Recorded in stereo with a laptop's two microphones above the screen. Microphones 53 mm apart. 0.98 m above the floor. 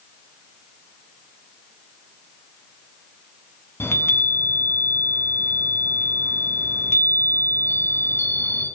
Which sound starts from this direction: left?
A chime, at 3.8 s.